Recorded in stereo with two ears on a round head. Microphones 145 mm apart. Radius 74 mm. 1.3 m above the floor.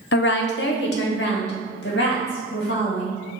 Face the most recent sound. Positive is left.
turn(degrees=65)  # may be behind; listen again after turning